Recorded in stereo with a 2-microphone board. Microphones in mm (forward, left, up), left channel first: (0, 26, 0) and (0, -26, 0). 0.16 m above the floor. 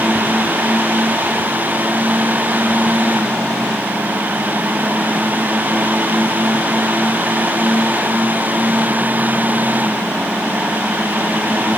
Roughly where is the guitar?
No guitar in this recording.